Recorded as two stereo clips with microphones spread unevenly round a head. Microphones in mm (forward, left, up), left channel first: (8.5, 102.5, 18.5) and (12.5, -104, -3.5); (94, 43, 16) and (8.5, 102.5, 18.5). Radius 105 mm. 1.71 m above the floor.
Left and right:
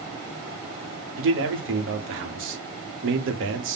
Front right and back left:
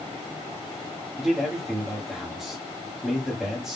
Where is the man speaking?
125° right, 0.8 m.